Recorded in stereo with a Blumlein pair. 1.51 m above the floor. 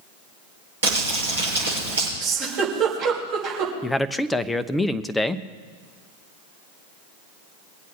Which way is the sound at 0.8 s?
70° right.